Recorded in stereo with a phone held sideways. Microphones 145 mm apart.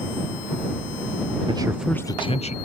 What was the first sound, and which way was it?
A man speaking, 35° right (ahead or behind).